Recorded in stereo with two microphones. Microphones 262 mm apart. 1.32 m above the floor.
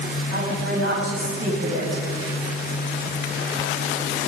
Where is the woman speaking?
65° right (ahead or behind), 8.5 m.